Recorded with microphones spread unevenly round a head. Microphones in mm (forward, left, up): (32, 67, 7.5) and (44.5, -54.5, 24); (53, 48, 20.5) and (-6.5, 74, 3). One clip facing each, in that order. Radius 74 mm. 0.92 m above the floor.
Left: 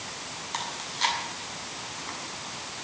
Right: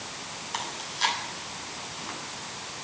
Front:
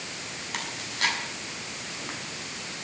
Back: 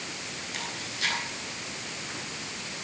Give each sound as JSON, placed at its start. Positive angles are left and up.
{"t": 0.5, "sound": "chewing", "azimuth_deg": 0, "distance_m": 7.0}